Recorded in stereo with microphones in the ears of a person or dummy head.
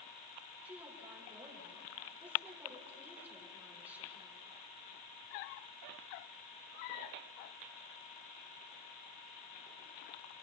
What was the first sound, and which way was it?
A woman speaking, 5° right (ahead or behind).